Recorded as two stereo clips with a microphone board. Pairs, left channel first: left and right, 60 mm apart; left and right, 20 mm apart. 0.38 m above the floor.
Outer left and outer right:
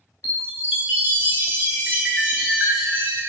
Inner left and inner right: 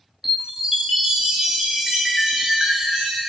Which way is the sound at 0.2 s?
30° right (ahead or behind).